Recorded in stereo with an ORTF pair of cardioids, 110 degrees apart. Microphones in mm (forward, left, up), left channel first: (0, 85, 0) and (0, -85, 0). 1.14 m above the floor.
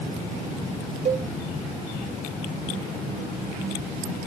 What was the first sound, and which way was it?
A cowbell, 40° right.